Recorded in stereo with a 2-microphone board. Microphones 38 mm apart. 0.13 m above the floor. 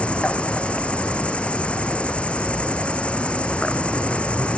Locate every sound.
0.0 s an insect: 30° left (ahead or behind)